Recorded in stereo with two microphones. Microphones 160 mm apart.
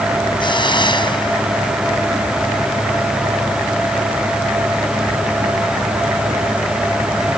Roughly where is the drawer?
I don't hear a drawer.